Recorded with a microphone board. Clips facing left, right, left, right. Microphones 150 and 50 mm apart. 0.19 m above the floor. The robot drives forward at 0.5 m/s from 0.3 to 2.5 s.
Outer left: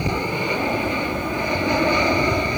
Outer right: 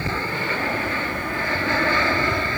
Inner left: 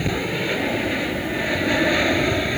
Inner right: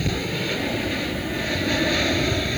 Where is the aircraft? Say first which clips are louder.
Outer left 4 dB, inner left 2 dB; 15° left (ahead or behind).